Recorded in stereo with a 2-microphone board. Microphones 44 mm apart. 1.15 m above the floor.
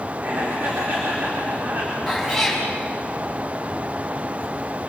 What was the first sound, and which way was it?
Laughter, 45° right (ahead or behind).